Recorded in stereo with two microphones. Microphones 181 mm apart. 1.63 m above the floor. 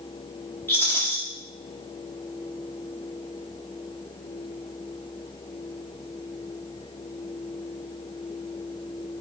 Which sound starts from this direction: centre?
A rattle, at 0.7 s.